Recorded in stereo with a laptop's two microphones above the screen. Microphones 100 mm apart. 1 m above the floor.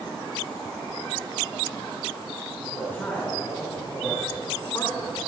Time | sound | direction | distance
2.6 | a man speaking | 20° left (ahead or behind) | 4 m